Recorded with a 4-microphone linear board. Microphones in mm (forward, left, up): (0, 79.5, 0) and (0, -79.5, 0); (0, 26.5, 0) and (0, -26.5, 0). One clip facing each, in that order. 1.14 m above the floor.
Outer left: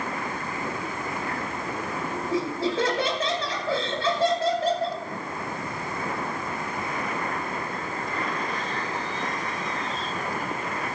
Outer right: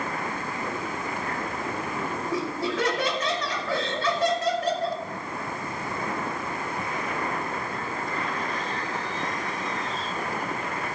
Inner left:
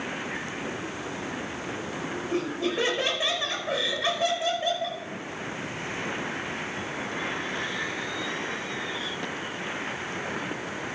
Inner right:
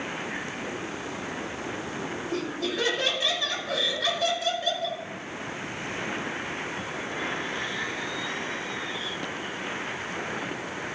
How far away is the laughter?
About 5.5 m.